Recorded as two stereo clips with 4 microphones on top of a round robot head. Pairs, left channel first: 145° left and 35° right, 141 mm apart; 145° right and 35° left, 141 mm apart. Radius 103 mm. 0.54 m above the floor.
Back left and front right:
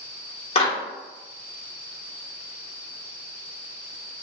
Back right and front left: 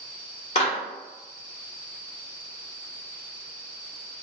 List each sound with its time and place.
0.6 s a clap: straight behind, 2.0 m